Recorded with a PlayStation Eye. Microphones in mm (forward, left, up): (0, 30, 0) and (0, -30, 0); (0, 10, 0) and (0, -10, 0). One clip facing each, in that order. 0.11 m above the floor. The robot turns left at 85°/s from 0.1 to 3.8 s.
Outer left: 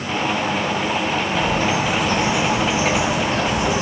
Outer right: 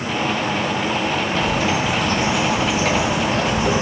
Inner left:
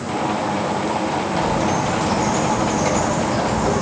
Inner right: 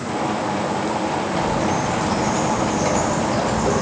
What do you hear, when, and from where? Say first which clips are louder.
1.3 s a bird: outer left 1 dB, inner left 2 dB; 155° left, 3.5 m; by 3.8 s 55° right, 3.5 m